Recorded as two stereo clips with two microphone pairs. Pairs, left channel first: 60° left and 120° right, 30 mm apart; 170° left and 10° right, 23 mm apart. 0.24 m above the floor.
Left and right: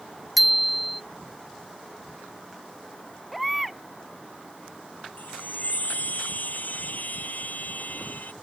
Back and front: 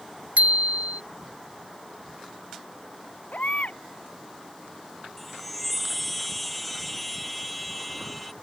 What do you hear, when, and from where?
0.4 s a bicycle bell: 30° right
3.3 s a baby crying: 155° left
5.2 s a chime: 85° left